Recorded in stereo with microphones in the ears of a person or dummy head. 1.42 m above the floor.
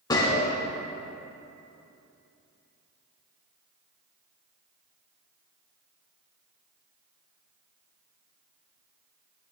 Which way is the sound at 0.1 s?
20° left (ahead or behind).